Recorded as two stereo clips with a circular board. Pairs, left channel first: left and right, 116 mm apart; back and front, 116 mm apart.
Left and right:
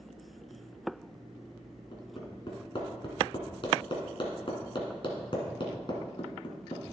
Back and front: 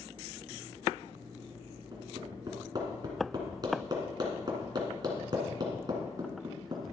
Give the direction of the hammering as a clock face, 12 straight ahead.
10 o'clock.